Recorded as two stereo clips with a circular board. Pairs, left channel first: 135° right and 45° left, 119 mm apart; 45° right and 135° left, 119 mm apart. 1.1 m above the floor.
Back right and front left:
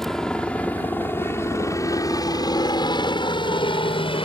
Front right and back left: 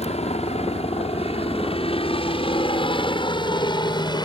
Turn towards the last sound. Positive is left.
turn(degrees=-95)